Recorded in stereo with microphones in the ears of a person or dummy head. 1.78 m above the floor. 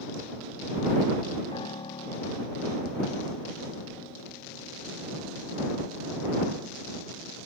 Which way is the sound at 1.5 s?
20° left (ahead or behind).